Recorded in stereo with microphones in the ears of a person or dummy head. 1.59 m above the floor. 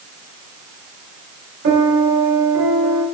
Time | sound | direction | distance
1.6 | a piano | 60° right (ahead or behind) | 2.5 m